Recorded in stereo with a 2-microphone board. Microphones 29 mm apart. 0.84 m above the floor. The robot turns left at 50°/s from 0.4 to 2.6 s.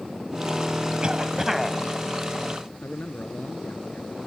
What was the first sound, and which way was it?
A cough, 145° right.